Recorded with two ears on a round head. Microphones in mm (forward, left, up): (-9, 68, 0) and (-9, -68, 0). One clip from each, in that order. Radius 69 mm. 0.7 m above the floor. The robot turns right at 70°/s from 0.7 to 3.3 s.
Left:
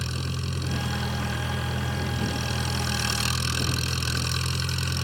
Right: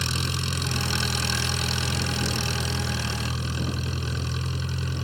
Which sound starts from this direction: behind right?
An engine running, at 0.0 s.